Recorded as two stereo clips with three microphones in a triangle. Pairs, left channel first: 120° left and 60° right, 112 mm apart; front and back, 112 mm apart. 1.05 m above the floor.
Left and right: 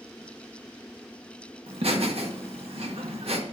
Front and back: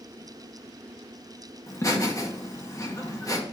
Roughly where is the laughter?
Ahead right.